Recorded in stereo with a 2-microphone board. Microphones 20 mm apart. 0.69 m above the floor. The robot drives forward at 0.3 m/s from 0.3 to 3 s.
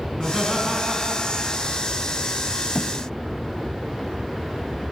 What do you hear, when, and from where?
0.1 s laughter: 25° right (ahead or behind), 5.5 m
2.8 s a thud: 50° left (ahead or behind), 1.8 m